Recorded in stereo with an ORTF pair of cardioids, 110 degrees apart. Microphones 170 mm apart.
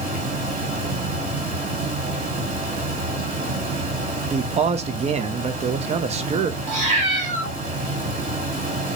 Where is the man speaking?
40° right, 0.6 m.